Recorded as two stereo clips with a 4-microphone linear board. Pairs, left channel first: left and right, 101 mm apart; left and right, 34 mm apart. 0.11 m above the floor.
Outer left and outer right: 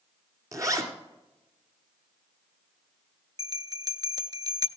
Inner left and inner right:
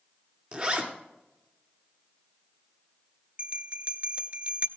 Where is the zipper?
30° right (ahead or behind), 1.8 m.